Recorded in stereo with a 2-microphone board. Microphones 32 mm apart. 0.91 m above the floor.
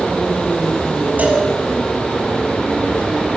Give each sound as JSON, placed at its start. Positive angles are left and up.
{"t": 1.2, "sound": "a cowbell", "side_deg": -60, "distance_m": 3.0}